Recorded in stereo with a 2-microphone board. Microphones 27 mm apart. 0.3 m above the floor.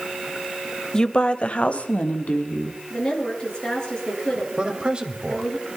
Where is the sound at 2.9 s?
35° left (ahead or behind), 5.5 m.